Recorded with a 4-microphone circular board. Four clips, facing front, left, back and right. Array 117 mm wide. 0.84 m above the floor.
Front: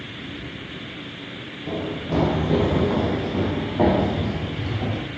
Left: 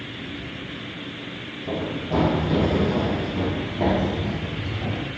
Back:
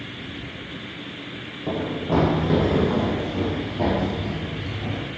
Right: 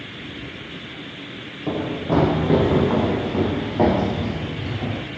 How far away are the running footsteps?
About 3 m.